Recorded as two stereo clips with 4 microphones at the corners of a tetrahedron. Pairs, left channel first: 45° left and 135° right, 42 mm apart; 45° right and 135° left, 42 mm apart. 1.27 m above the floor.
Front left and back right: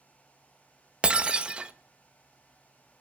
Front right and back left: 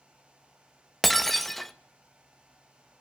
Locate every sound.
1.0 s breaking glass: 130° right, 0.6 m